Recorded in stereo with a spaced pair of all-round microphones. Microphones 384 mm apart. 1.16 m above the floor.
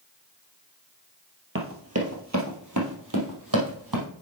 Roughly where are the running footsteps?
Right.